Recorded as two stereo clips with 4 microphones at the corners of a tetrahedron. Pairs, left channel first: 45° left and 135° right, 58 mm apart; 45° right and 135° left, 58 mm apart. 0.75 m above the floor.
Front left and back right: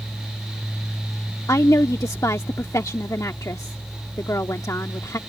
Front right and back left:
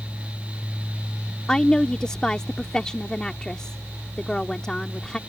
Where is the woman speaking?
30° left.